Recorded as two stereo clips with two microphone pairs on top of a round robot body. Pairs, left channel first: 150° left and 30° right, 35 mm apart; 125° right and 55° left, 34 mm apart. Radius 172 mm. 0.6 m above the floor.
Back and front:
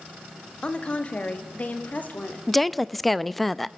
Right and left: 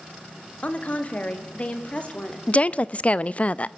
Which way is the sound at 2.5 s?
115° right.